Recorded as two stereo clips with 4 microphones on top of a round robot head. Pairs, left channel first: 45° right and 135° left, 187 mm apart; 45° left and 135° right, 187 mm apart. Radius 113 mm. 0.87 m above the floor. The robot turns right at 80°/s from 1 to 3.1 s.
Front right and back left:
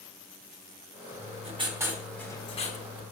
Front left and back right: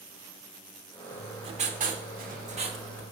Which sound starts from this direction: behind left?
Writing, at 1.1 s.